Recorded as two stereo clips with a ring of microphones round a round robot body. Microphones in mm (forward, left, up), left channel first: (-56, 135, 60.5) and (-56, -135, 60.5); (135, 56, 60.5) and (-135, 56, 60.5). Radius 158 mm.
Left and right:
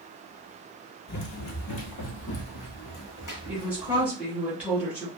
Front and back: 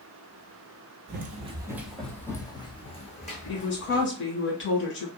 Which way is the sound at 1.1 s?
135° left.